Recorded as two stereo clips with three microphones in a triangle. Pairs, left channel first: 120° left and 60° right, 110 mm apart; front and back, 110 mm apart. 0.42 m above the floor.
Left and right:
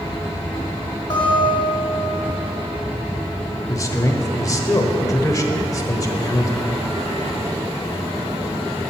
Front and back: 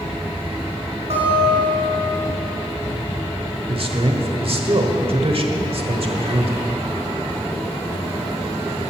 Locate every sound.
1.1 s a guitar: 165° left, 4.5 m
3.7 s a man speaking: 175° left, 1.2 m